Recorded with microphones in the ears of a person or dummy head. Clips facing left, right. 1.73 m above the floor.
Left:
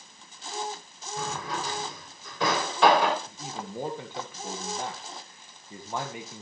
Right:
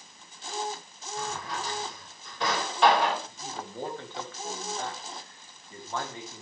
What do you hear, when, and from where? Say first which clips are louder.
1.2 s a drawer: left 2 dB; 70° left (ahead or behind), 3 m
3.3 s a man speaking: left 1 dB; 10° left (ahead or behind), 1.8 m